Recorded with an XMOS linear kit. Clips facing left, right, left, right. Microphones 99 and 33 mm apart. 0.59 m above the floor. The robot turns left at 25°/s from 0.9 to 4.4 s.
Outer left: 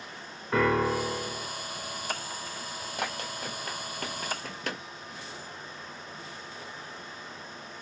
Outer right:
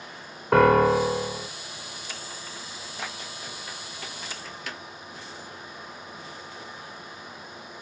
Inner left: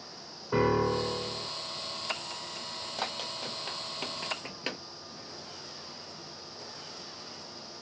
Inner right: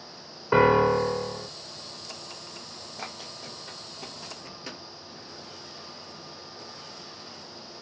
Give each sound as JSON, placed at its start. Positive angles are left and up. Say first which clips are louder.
{"t": 0.5, "sound": "a piano", "louder": "outer right 8 dB, inner right 7 dB", "side_deg": -75, "distance_m": 0.6}
{"t": 3.0, "sound": "running footsteps", "louder": "outer left 4 dB, inner left 4 dB", "side_deg": 70, "distance_m": 1.3}